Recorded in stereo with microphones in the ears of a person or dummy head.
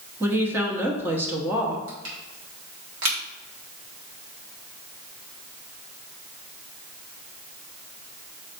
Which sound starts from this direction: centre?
A woman speaking, at 0.2 s.